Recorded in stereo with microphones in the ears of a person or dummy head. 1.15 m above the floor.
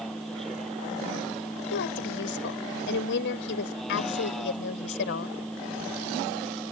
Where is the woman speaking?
75° left (ahead or behind).